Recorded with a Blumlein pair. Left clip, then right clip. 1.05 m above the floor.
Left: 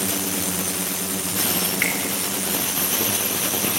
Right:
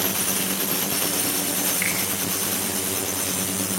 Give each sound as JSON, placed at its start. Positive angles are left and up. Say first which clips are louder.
{"t": 1.8, "sound": "a finger snap", "louder": "left 4 dB", "azimuth_deg": 15, "distance_m": 6.5}